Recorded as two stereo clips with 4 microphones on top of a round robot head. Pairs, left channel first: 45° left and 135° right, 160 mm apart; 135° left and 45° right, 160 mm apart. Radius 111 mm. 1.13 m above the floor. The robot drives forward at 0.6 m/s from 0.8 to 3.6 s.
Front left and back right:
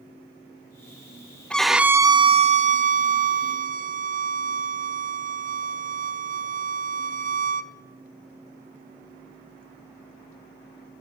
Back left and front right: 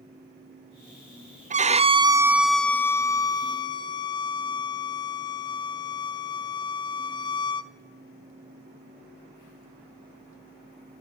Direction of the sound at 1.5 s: 35° right.